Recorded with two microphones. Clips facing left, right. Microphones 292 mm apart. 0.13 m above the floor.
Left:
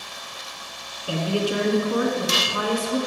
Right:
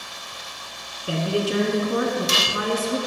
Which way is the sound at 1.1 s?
25° right (ahead or behind).